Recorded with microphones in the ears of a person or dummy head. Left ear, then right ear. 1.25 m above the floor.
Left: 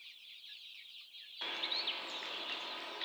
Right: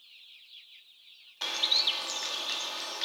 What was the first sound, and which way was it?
A bird, 85° right.